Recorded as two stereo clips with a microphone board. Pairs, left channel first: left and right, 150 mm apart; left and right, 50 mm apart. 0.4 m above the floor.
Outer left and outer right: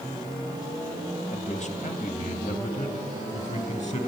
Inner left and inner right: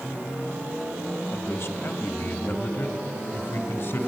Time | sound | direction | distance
1.3 | a man speaking | 50° left (ahead or behind) | 1.3 m